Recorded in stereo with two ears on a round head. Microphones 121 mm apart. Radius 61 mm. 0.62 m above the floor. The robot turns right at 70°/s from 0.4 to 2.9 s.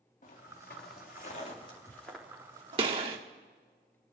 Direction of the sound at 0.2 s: 55° left (ahead or behind).